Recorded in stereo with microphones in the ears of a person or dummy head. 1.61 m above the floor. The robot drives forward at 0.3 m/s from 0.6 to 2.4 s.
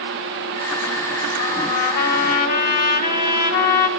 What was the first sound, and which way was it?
A trumpet, 55° left (ahead or behind).